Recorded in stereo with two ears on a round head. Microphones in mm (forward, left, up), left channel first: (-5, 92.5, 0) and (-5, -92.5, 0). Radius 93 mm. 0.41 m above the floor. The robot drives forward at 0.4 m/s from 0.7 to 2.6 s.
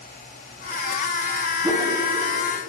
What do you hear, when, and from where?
1.6 s a whoosh: 10° right (ahead or behind), 1.4 m